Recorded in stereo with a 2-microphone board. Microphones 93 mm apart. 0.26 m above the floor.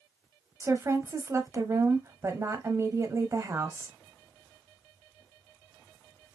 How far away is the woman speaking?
About 1.0 m.